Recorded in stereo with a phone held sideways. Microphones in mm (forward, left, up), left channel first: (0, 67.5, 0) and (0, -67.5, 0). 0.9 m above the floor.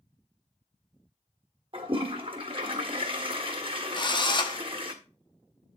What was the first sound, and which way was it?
A toilet flushing, 40° right (ahead or behind).